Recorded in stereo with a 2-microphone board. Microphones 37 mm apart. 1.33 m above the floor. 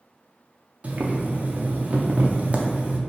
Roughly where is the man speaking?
I don't hear a man speaking.